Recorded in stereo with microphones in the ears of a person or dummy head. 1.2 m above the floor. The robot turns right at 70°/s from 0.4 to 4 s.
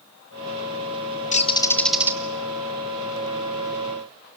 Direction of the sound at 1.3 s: 135° left.